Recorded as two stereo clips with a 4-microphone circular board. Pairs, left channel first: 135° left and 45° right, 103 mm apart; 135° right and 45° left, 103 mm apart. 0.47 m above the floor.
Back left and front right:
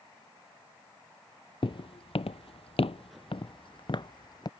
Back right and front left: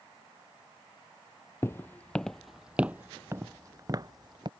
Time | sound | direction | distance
1.6 | footsteps | 165° left | ?